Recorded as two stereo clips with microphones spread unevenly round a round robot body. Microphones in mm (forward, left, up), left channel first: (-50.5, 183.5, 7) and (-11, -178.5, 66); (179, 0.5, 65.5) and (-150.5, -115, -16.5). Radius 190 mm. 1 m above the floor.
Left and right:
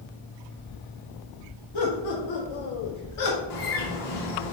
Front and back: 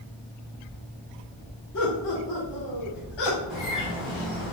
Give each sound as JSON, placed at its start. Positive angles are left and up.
{"t": 1.7, "sound": "laughter", "azimuth_deg": 75, "distance_m": 3.0}
{"t": 3.5, "sound": "a bird", "azimuth_deg": 115, "distance_m": 2.0}